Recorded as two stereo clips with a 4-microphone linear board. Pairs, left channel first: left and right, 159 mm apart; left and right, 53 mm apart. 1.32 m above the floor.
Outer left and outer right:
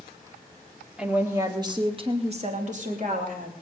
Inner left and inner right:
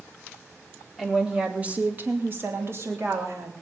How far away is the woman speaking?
About 1.8 m.